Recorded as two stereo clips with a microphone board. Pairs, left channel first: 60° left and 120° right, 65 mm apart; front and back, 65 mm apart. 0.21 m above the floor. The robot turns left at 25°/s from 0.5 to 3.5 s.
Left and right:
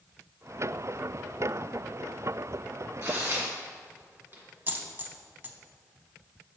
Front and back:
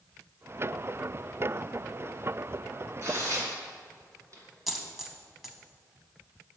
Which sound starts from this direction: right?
A dropped coin, at 4.7 s.